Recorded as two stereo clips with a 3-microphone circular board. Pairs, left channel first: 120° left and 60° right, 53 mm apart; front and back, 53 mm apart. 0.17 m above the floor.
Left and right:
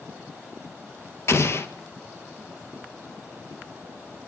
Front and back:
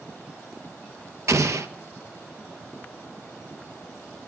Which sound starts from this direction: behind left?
An explosion, at 1.3 s.